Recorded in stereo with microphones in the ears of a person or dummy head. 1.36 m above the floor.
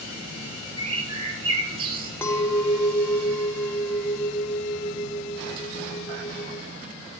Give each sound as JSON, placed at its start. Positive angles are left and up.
{"t": 0.8, "sound": "a bird", "side_deg": -35, "distance_m": 1.2}
{"t": 2.2, "sound": "a clink", "side_deg": 10, "distance_m": 0.6}